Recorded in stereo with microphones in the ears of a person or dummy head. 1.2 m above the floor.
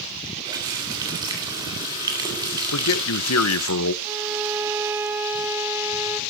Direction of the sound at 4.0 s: 10° right (ahead or behind).